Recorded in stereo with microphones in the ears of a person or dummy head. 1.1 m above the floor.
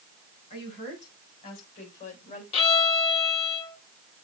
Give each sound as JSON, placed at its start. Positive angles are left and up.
{"t": 0.5, "sound": "a woman speaking", "side_deg": 30, "distance_m": 5.0}
{"t": 2.5, "sound": "a violin", "side_deg": 25, "distance_m": 1.7}